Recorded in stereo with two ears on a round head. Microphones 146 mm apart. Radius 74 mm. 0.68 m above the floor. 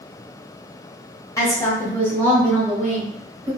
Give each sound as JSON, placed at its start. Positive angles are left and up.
{"t": 1.4, "sound": "a woman speaking", "side_deg": 20, "distance_m": 1.2}